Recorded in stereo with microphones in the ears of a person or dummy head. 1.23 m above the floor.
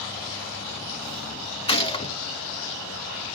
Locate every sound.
1.7 s a gunshot: 30° left (ahead or behind), 0.6 m